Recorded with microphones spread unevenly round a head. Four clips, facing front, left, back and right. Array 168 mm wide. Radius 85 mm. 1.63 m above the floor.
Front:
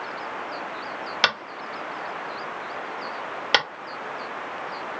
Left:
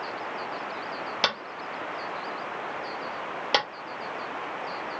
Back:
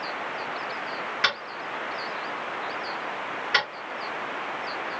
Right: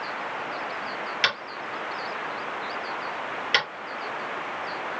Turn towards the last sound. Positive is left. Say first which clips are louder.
# right 1 dB, front 4 dB
turn(degrees=50)